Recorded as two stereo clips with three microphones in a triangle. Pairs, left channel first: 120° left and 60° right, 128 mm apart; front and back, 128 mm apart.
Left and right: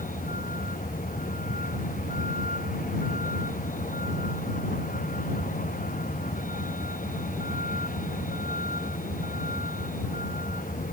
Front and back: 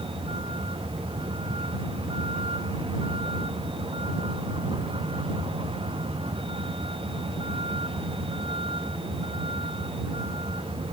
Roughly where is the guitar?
I don't hear a guitar.